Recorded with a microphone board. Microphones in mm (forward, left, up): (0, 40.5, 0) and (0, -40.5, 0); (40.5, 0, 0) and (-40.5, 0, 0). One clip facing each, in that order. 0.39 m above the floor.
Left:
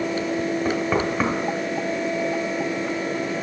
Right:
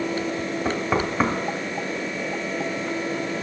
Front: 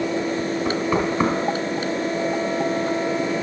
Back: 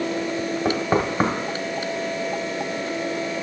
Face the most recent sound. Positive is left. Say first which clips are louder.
# right 1 dB, back 1 dB
turn(degrees=-175)